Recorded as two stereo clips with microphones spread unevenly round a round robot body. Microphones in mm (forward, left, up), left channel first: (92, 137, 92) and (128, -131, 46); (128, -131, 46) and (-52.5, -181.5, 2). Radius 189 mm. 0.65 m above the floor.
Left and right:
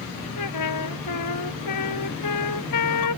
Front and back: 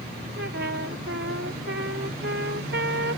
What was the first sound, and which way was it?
A trumpet, 135° left.